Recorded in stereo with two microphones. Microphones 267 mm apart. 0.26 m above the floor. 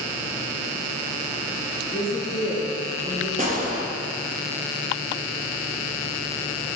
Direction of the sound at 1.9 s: 50° left (ahead or behind).